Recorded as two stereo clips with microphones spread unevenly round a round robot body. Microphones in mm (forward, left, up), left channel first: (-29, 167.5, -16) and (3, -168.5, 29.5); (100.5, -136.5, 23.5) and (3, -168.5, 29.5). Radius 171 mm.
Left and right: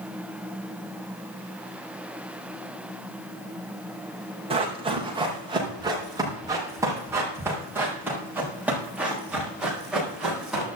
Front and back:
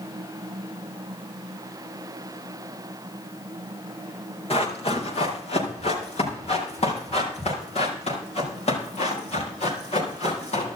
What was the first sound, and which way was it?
Running footsteps, 10° right.